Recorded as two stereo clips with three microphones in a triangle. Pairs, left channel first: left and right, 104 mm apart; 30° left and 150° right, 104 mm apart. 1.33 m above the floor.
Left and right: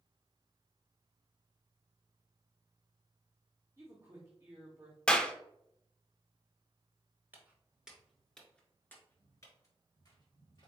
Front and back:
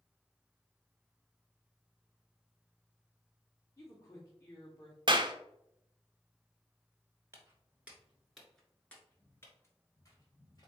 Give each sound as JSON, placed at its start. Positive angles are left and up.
{"t": 3.8, "sound": "a woman speaking", "azimuth_deg": -30, "distance_m": 0.9}
{"t": 5.1, "sound": "a clap", "azimuth_deg": 170, "distance_m": 0.5}
{"t": 7.3, "sound": "footsteps", "azimuth_deg": -130, "distance_m": 1.4}